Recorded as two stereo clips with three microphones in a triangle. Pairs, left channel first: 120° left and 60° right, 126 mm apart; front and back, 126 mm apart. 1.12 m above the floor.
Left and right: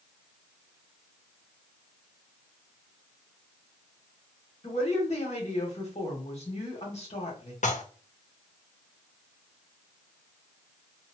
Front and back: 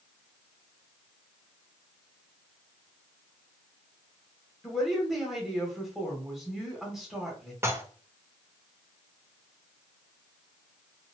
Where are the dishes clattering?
110° left, 0.6 m.